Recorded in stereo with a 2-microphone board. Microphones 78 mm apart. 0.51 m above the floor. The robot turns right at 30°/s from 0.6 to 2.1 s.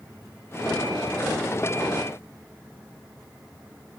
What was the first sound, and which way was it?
Only background noise.